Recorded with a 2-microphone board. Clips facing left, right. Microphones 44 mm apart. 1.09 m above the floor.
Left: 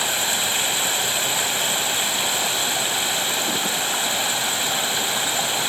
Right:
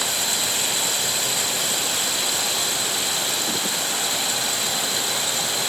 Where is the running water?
35° left (ahead or behind), 1.1 m.